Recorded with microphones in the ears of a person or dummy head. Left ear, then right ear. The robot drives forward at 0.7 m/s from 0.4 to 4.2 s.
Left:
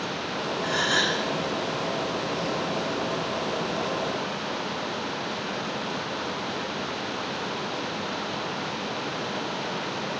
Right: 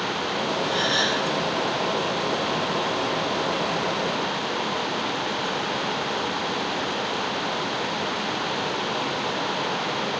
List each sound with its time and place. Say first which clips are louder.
0.6 s a gasp: even; 55° left (ahead or behind), 8.5 m; by 1.2 s 50° left (ahead or behind), 8.5 m